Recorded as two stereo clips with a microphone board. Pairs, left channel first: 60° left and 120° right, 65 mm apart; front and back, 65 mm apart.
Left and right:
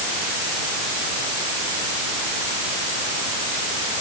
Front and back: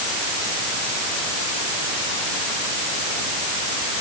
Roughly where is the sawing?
No sawing in this recording.